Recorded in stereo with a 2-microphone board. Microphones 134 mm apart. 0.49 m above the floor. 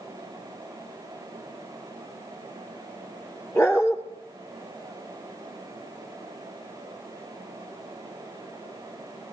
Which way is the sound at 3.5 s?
25° left (ahead or behind).